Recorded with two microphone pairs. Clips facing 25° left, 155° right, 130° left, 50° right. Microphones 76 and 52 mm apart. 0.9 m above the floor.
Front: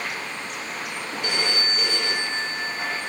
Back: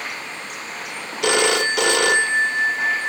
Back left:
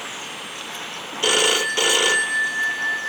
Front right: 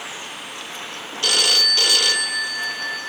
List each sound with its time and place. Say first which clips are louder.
1.2 s a phone ringing: back 10 dB, back left 2 dB; 160° right, 0.5 m